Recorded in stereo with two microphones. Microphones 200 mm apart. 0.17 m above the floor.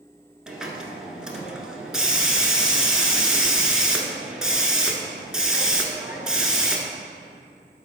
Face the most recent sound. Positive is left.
turn(degrees=-5)  # may be behind; listen again after turning